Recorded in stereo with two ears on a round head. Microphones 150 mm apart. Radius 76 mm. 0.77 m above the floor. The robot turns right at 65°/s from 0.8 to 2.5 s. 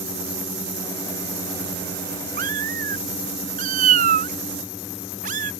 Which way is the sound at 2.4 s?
55° right (ahead or behind).